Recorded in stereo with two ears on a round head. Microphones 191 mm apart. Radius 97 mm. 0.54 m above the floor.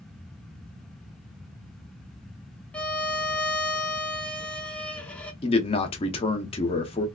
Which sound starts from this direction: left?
A man speaking, at 5.4 s.